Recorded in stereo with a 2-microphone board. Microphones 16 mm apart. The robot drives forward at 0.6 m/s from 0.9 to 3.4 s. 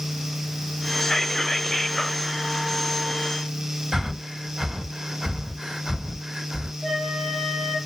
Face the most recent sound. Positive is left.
turn(degrees=-30)  # may be behind; listen again after turning